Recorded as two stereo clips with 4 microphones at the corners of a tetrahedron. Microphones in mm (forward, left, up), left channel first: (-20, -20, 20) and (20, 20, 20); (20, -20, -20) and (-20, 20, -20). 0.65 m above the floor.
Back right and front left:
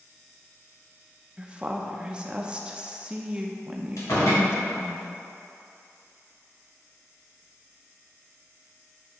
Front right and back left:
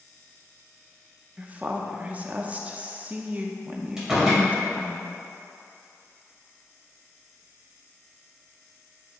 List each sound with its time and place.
1.4 s a woman speaking: 100° left, 0.6 m
4.0 s a door slam: 145° right, 2.5 m